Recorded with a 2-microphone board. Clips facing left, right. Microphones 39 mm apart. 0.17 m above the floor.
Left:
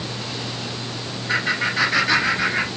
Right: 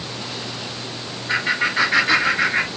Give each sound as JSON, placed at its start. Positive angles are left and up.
{"t": 1.3, "sound": "laughter", "side_deg": -10, "distance_m": 1.0}